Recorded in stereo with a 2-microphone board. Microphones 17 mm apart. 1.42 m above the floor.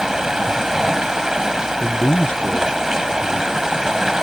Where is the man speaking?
65° left (ahead or behind).